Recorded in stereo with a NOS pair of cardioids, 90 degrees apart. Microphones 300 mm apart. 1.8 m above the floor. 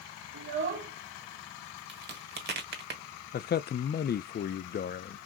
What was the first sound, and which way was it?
A child speaking, 40° right.